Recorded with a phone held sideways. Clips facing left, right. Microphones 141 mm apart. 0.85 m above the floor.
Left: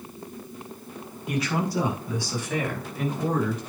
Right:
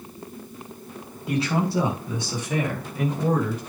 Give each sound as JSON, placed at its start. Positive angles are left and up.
{"t": 1.3, "sound": "a man speaking", "side_deg": -30, "distance_m": 5.5}